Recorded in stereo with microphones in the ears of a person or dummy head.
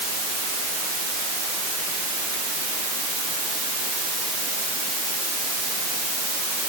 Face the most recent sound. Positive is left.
No sound to turn to.